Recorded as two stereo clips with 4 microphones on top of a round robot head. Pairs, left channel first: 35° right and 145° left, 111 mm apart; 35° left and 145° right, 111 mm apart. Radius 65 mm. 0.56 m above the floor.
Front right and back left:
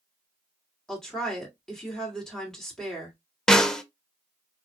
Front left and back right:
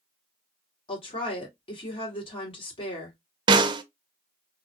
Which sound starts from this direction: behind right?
A snare drum, at 3.5 s.